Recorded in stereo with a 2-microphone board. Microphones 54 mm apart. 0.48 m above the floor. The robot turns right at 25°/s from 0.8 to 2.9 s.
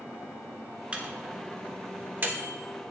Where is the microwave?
20° right (ahead or behind), 0.9 m; by 2.5 s 35° right (ahead or behind), 0.9 m.